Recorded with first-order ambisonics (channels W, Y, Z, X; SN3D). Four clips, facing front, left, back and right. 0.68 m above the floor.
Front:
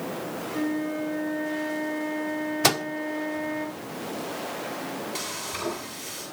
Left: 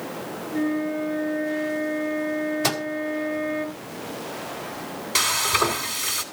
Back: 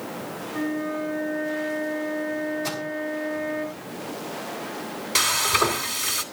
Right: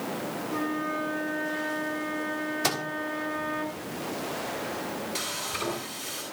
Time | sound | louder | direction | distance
0.5 | a flute | left 6 dB, back 1 dB | 100° right | 9.5 m
2.6 | a microwave | even, front 7 dB | 10° left | 1.3 m
5.2 | frying | left 15 dB, back 12 dB | 140° left | 2.5 m